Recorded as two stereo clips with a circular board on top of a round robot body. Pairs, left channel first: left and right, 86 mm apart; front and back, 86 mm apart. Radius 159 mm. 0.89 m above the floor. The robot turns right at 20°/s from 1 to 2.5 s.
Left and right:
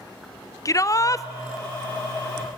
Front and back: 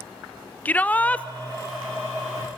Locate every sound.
0.7 s a shout: 65° left, 0.9 m; by 1.3 s 70° left, 0.9 m